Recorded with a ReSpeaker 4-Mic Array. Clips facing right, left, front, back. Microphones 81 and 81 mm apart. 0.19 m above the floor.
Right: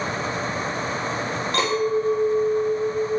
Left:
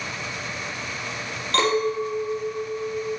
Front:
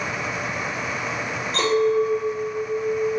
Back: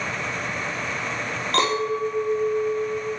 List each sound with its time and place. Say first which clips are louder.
1.5 s a clink: left 1 dB, front 4 dB; 165° right, 4.5 m